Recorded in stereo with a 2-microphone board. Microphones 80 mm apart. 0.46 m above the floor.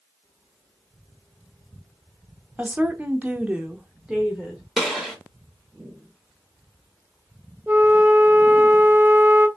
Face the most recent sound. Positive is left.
turn(degrees=-25)  # may be behind; listen again after turning